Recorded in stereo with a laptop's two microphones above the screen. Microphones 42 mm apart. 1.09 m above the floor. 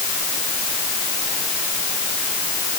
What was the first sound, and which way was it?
Only background noise.